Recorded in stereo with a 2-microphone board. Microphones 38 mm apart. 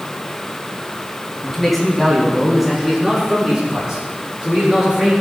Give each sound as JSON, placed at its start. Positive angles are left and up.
{"t": 1.4, "sound": "a man speaking", "side_deg": 5, "distance_m": 3.5}